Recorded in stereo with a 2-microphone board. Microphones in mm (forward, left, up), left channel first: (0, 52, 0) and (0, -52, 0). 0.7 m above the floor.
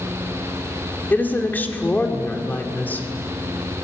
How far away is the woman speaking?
About 2 m.